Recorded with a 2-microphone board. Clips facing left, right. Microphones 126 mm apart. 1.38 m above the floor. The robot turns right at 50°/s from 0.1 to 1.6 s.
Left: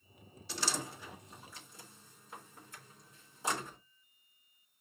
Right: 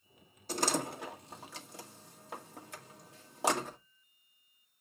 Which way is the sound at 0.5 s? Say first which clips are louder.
Right 7 dB; 45° right (ahead or behind).